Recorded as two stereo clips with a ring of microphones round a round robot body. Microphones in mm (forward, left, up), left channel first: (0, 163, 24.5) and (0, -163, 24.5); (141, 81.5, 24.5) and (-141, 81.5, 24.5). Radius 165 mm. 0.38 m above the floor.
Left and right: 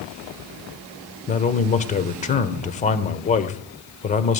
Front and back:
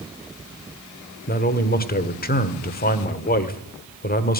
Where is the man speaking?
35° left, 1.3 m.